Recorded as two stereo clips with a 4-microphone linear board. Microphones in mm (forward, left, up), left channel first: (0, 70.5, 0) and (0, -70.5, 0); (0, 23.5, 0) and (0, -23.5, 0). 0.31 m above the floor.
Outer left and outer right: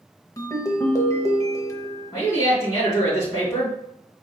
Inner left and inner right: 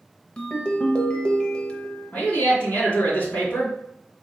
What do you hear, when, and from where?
0.4 s a ringtone: 25° left (ahead or behind), 0.7 m
2.1 s a man speaking: 25° left (ahead or behind), 2.0 m